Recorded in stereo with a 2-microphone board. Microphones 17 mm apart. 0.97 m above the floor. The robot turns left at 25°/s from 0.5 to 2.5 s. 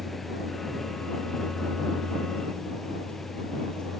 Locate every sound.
0.0 s a vehicle: 15° left (ahead or behind); by 4.0 s 55° left (ahead or behind)